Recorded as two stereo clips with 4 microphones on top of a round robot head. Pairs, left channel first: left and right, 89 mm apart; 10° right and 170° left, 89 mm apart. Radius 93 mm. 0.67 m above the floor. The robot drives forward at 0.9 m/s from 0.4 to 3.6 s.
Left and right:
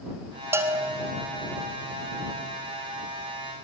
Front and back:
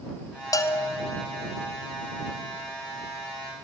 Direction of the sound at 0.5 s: 40° right.